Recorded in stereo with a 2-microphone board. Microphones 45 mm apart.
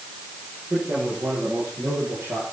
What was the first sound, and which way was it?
A man speaking, 70° right (ahead or behind).